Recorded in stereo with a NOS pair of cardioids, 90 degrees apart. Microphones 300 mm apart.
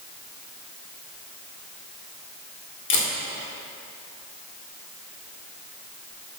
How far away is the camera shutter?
About 1.6 m.